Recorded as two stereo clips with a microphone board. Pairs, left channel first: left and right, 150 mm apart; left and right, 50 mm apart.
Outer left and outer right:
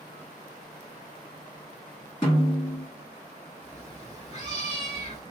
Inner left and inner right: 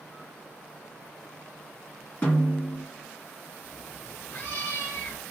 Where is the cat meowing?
45° left (ahead or behind), 0.9 m.